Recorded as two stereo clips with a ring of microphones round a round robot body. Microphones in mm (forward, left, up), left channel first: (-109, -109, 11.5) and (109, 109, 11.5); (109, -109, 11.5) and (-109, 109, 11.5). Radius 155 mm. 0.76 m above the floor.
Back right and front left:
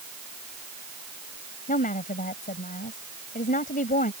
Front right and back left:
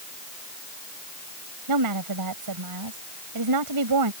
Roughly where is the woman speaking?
Behind.